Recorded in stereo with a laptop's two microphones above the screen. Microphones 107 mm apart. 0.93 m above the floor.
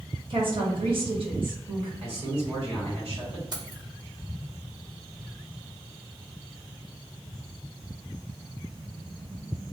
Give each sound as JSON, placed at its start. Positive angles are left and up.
{"t": 0.3, "sound": "a woman speaking", "side_deg": -55, "distance_m": 1.2}
{"t": 2.0, "sound": "a man speaking", "side_deg": -65, "distance_m": 1.6}
{"t": 3.5, "sound": "keys jangling", "side_deg": -40, "distance_m": 0.8}